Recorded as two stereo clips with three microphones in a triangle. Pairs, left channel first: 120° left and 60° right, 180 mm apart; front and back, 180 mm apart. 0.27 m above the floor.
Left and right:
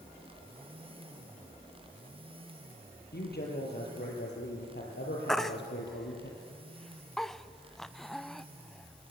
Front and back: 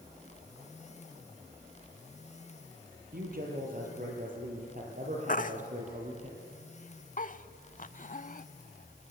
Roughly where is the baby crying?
Ahead left.